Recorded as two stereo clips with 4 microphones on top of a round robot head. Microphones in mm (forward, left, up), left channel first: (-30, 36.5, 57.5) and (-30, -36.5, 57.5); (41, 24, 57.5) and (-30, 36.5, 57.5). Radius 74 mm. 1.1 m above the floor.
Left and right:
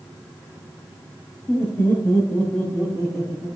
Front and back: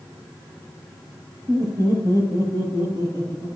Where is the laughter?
160° left, 5 m; by 3.5 s 175° left, 7 m.